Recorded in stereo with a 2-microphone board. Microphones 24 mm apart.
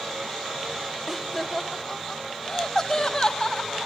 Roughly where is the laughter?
Centre.